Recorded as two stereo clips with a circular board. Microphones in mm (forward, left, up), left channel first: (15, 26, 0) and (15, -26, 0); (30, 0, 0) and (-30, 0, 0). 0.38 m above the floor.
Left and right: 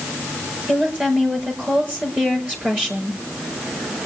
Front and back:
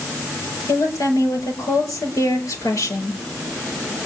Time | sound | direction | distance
0.7 | a woman speaking | 25° right | 6 m